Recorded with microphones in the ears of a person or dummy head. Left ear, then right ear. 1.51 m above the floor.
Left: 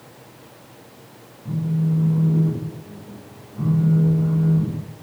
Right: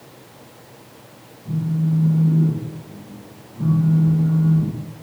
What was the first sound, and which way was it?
A phone buzzing, 75° left (ahead or behind).